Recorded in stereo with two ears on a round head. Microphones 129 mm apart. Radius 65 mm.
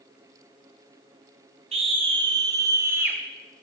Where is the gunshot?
No gunshot in this recording.